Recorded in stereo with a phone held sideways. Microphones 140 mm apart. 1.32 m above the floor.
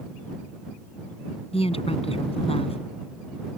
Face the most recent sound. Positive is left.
turn(degrees=45)  # may be behind; listen again after turning